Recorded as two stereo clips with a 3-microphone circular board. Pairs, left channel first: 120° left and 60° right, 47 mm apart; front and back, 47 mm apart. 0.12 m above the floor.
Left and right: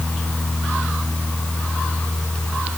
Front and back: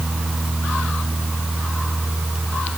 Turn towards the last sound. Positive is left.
No sound to turn to.